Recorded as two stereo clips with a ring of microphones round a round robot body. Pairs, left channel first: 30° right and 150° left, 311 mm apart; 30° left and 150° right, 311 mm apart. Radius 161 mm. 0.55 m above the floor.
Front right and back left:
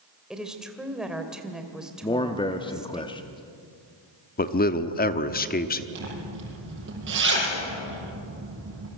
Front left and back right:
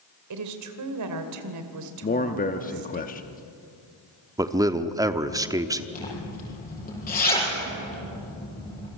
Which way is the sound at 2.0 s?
25° left.